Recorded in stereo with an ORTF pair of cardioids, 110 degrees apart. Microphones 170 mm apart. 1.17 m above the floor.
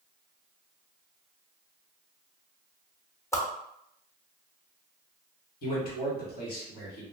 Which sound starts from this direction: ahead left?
A man speaking, at 5.6 s.